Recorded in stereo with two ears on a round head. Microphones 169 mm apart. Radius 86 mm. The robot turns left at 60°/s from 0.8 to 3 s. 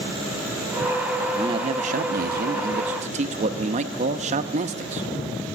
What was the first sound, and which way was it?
A man speaking, 25° right.